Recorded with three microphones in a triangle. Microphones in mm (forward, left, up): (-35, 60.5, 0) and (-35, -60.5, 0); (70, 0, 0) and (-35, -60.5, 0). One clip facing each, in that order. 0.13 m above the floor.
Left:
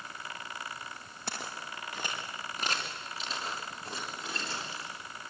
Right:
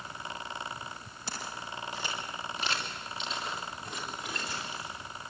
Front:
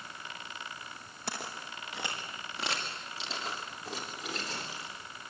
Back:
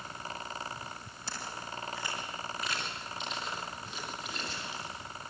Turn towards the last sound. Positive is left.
turn(degrees=25)